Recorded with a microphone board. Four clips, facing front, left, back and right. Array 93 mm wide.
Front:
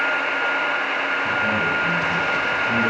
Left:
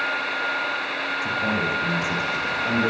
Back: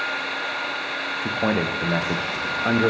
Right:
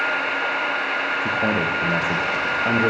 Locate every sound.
1.2 s a man speaking: 145° right, 7 m; by 2.9 s 150° right, 9 m